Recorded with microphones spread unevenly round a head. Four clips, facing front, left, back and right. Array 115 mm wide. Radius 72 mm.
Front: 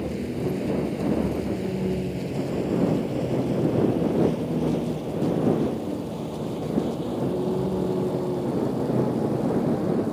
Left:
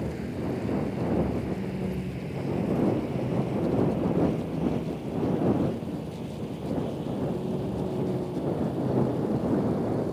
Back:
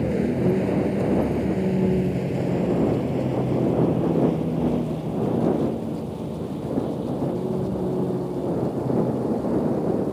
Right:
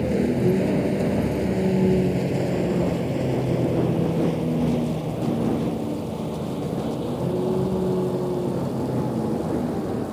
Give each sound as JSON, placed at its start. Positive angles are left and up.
{"t": 0.0, "sound": "a vehicle", "azimuth_deg": -115}